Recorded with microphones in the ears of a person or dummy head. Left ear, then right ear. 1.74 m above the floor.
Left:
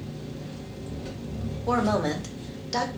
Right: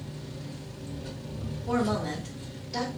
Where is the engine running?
25° left (ahead or behind), 1.7 m.